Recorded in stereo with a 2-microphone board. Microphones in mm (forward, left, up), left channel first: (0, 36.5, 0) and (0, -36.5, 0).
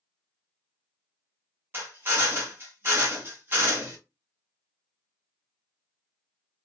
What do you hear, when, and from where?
1.7 s a drill: 30° right (ahead or behind), 1.6 m